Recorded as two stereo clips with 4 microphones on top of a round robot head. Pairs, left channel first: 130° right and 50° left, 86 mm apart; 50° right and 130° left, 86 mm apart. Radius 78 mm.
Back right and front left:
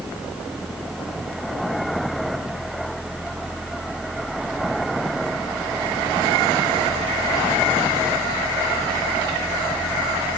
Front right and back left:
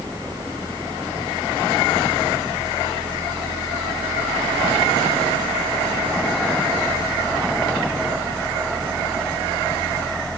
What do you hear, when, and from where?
Only background noise.